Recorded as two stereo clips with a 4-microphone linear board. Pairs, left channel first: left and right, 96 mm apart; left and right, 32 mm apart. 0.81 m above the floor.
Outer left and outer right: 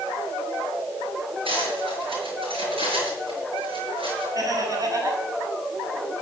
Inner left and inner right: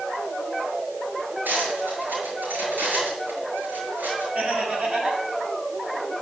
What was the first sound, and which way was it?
Cutlery clinking, 65° right (ahead or behind).